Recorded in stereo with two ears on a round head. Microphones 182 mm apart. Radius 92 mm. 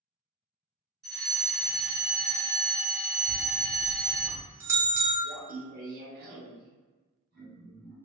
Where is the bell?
15° right (ahead or behind), 0.8 m.